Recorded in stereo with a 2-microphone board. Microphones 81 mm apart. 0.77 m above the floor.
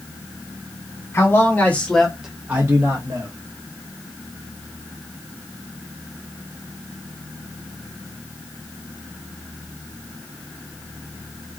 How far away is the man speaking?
About 1.7 m.